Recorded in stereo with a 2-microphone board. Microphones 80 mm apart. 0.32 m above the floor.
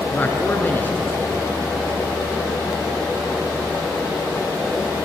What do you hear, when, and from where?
0.1 s a man speaking: 25° left (ahead or behind), 4 m